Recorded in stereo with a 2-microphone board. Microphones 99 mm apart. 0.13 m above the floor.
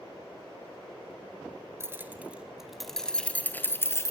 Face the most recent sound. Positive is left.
turn(degrees=30)  # may be behind; listen again after turning